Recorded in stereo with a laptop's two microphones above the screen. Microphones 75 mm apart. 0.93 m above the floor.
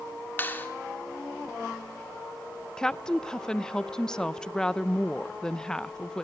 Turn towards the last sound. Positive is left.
turn(degrees=10)  # may be behind; listen again after turning